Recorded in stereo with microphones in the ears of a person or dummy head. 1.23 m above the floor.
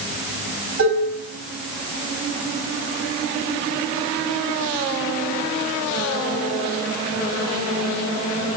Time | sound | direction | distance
0.8 | dishes clattering | 70° right (ahead or behind) | 7.5 m